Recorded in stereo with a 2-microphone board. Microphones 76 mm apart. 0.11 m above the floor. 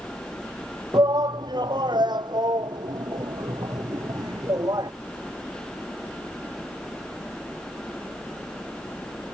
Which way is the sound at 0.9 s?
65° right (ahead or behind).